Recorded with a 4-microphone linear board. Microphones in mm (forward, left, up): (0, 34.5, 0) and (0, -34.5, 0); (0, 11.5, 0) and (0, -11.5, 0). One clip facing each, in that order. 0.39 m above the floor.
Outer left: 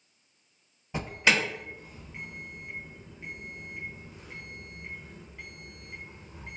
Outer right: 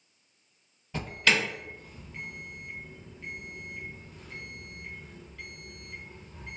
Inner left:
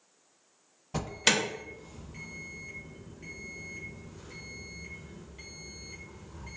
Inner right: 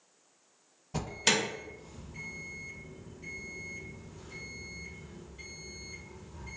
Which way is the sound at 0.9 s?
20° left (ahead or behind).